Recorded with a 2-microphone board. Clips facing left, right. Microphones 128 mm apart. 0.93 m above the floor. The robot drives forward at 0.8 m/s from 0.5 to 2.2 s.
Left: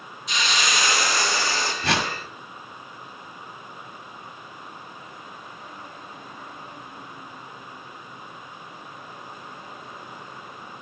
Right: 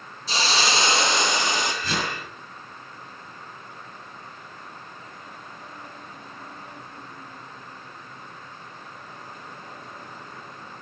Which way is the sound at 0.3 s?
30° right (ahead or behind).